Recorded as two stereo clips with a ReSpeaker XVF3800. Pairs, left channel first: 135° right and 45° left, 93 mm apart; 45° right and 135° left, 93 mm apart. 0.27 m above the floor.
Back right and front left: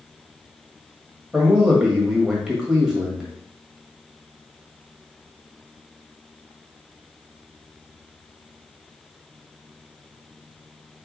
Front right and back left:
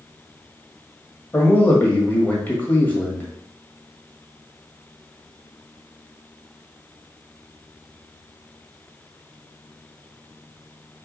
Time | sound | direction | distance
1.3 | a man speaking | 25° right | 1.4 m